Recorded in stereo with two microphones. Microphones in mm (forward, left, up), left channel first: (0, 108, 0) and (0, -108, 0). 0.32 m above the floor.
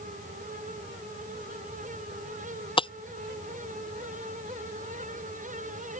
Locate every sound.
2.8 s breaking glass: 25° left (ahead or behind)